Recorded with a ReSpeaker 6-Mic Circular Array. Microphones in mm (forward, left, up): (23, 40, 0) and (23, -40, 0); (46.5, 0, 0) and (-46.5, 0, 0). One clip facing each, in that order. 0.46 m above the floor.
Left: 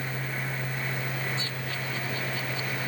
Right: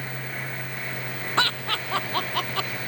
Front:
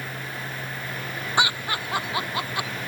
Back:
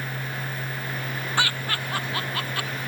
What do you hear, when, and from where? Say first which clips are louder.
1.4 s laughter: right 9 dB, front 3 dB; 75° right; by 2.7 s 70° right